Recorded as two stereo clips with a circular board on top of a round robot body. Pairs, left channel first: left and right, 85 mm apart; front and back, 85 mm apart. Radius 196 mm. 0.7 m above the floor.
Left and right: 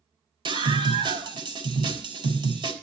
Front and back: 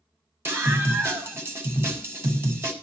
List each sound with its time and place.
0.5 s a scream: 115° right, 6.5 m